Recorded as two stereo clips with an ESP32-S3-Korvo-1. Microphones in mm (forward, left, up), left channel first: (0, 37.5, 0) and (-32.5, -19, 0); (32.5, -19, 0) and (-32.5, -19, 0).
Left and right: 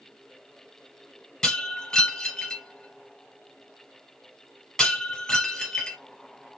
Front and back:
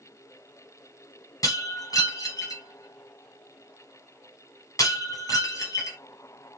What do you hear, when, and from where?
1.4 s breaking glass: 20° right, 3 m